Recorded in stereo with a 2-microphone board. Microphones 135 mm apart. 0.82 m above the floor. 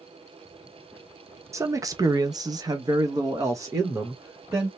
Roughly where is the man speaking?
Right.